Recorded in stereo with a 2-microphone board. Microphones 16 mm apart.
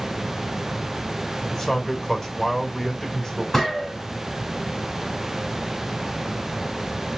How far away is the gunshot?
About 4 m.